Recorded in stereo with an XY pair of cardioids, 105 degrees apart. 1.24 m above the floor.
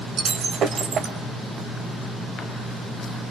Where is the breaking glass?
60° right, 2.5 m.